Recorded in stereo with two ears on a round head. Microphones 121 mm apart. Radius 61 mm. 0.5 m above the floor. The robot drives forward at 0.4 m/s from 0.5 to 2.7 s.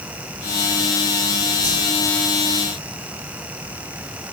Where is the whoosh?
45° right (ahead or behind), 7 m.